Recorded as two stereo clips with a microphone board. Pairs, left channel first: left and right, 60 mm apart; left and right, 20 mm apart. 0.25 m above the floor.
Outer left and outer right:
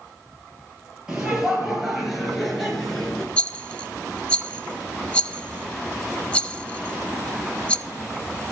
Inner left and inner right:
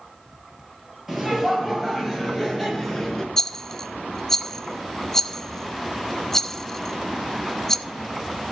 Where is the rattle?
20° left (ahead or behind), 0.6 m.